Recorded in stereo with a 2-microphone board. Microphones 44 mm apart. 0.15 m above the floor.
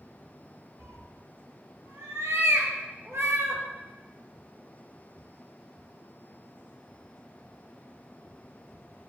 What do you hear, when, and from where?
0.8 s a cat meowing: 70° right (ahead or behind), 0.6 m